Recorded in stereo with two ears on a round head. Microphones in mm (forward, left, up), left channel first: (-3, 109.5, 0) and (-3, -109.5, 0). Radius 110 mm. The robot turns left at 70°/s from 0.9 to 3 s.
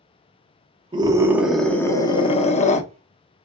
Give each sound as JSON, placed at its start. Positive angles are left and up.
{"t": 0.9, "sound": "a scream", "side_deg": -20, "distance_m": 0.9}